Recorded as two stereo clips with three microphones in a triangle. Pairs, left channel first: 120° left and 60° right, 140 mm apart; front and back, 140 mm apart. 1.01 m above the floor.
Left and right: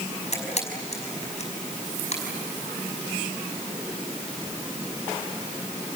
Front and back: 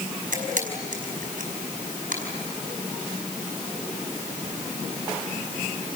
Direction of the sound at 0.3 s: 160° left.